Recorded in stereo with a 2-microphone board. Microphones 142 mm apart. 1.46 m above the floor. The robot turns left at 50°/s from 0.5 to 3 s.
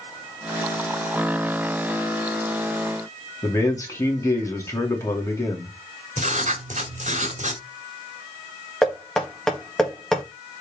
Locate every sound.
3.4 s a man speaking: 20° left (ahead or behind), 2.5 m
6.2 s writing: 60° right (ahead or behind), 1.7 m
8.8 s knocking: 5° left (ahead or behind), 2 m